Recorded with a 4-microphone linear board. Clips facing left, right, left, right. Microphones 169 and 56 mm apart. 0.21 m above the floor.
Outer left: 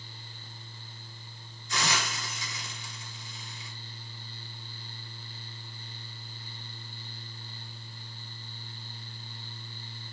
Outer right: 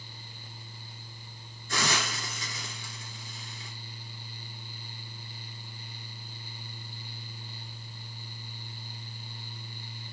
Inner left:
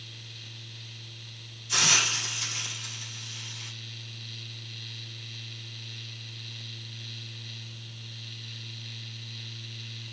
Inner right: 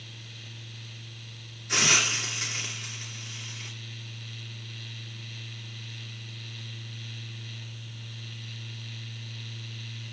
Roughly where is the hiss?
Right.